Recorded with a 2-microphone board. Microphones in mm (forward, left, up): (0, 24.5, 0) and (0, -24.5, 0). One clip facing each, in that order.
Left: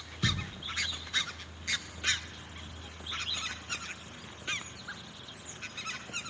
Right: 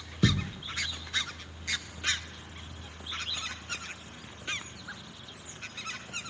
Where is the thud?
60° right (ahead or behind), 1.4 m.